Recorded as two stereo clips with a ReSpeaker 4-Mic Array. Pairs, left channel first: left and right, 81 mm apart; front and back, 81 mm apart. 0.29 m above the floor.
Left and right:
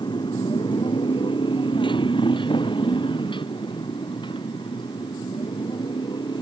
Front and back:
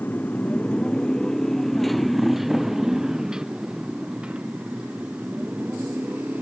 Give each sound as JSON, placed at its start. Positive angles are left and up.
{"t": 0.0, "sound": "a motorcycle", "azimuth_deg": 70}